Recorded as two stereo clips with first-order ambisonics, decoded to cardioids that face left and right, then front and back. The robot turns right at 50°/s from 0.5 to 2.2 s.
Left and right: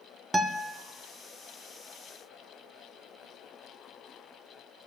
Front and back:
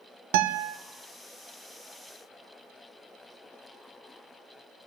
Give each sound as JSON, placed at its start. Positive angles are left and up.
{"t": 0.3, "sound": "a guitar", "azimuth_deg": -175, "distance_m": 0.5}